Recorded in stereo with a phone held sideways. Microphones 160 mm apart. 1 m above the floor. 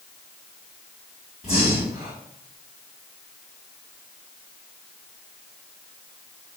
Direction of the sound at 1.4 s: 40° left (ahead or behind).